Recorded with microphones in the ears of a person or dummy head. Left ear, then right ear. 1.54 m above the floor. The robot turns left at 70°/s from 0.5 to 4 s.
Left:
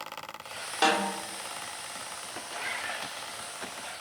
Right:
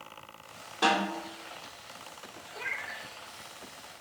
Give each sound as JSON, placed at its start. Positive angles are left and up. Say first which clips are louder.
{"t": 0.8, "sound": "a snare drum", "louder": "left 1 dB", "side_deg": 55, "distance_m": 3.0}
{"t": 2.5, "sound": "a cat meowing", "louder": "left 2 dB", "azimuth_deg": -140, "distance_m": 1.9}